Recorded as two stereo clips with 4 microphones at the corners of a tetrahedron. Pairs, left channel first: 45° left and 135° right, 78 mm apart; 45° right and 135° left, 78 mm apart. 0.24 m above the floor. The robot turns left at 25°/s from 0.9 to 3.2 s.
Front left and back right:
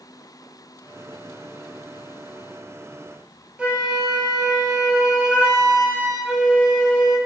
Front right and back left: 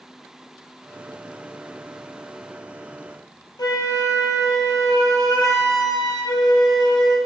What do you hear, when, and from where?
3.6 s a flute: 65° right, 0.8 m